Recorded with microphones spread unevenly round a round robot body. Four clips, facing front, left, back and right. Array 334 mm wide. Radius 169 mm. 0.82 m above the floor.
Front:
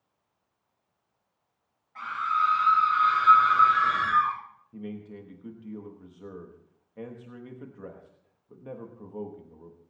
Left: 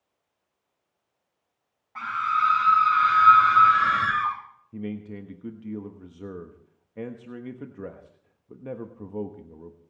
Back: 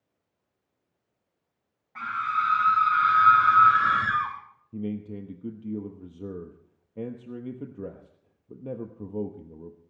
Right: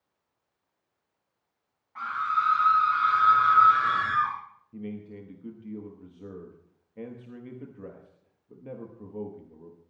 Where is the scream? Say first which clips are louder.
Left 3 dB, front 1 dB; 145° left, 5 m; by 4.3 s 130° left, 4.5 m.